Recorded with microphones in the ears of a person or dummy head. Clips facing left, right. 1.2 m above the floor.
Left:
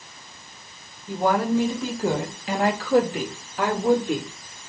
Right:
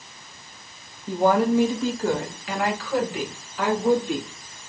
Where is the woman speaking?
30° right (ahead or behind), 0.6 m; by 4.3 s 45° left (ahead or behind), 1.6 m.